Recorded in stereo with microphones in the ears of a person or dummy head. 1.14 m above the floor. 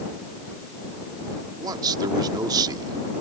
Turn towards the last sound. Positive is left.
turn(degrees=-25)  # may be behind; listen again after turning